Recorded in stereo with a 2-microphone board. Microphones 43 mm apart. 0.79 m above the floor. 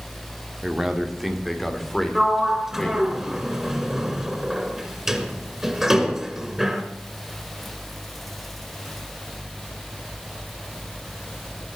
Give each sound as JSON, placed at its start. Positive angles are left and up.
{"t": 0.6, "sound": "a man speaking", "side_deg": -15, "distance_m": 1.8}
{"t": 2.1, "sound": "a sliding door", "side_deg": -10, "distance_m": 1.8}